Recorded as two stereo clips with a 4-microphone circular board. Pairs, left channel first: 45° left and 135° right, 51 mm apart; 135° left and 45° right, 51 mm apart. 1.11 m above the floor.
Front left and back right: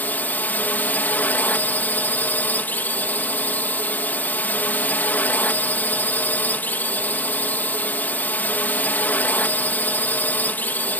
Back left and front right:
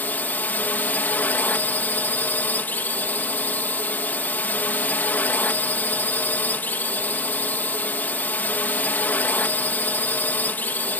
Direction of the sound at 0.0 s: 90° left.